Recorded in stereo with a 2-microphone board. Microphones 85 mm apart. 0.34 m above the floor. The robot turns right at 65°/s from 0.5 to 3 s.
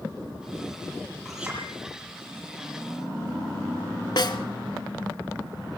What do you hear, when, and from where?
1.2 s a clink: centre (ahead or behind), 8 m; by 1.6 s 20° right (ahead or behind), 8 m
4.2 s a snare drum: 60° left (ahead or behind), 1.2 m